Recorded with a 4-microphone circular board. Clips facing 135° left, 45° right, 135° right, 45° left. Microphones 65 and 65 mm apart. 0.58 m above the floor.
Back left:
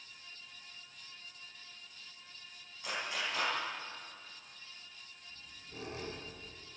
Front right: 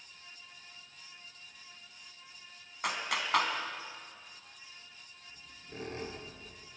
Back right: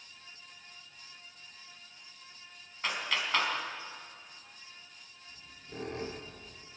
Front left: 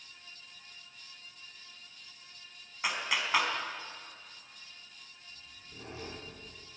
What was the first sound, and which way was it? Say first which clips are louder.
A clap: front right 4 dB, front left 1 dB; 35° right.